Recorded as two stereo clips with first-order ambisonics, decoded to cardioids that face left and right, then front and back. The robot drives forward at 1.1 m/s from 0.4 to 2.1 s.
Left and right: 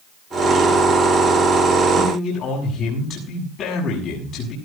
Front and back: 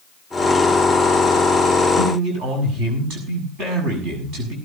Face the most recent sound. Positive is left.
turn(degrees=140)